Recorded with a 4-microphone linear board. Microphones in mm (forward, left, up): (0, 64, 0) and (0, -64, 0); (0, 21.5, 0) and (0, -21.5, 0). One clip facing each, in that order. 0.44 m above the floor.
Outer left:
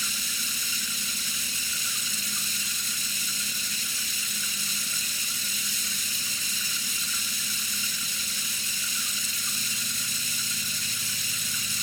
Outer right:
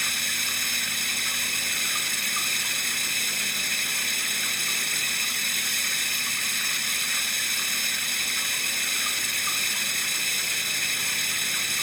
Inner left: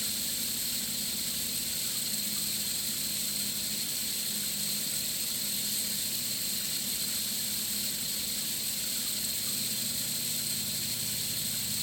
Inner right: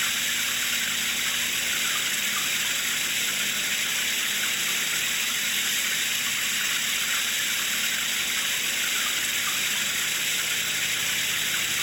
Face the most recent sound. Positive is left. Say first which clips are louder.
# outer right 4 dB, inner right 12 dB
turn(degrees=-60)  # may be behind; listen again after turning